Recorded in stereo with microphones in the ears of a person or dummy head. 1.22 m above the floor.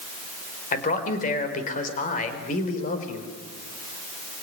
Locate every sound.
0.7 s a man speaking: 50° left (ahead or behind), 4.5 m